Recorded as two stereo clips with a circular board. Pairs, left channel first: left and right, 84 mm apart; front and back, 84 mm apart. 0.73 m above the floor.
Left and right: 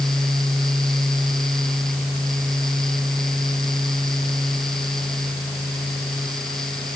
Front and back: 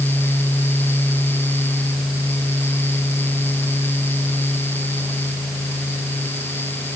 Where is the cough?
I don't hear a cough.